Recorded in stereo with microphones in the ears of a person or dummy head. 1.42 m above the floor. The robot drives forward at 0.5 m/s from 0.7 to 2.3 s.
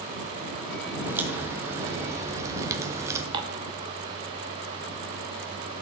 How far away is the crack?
About 2 m.